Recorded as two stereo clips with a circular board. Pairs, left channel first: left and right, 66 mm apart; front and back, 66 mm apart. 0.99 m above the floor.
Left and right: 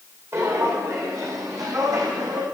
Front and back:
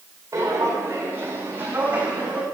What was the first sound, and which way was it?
Footsteps, 135° right.